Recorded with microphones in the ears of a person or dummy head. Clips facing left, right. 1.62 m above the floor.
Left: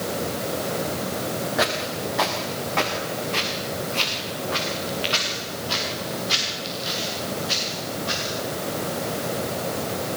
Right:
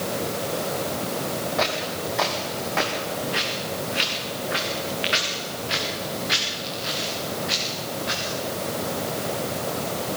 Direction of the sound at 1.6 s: 15° left (ahead or behind).